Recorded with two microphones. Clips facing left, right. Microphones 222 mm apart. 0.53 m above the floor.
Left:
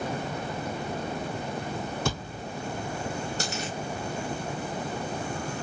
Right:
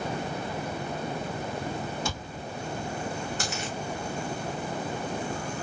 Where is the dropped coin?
40° left (ahead or behind), 5.5 m.